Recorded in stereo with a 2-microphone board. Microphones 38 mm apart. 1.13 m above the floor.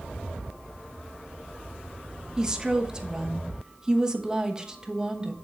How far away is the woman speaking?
About 1.0 m.